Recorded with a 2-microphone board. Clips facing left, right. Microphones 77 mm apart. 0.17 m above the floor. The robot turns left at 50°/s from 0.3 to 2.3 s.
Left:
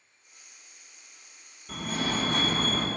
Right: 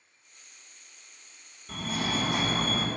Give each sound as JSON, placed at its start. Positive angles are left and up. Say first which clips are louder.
{"t": 1.7, "sound": "a fire alarm", "louder": "left 1 dB", "side_deg": 0, "distance_m": 2.0}